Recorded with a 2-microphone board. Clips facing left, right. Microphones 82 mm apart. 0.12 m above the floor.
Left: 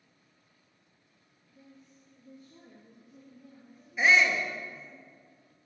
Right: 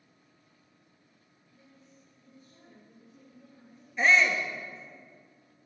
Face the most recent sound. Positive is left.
turn(degrees=5)  # may be behind; listen again after turning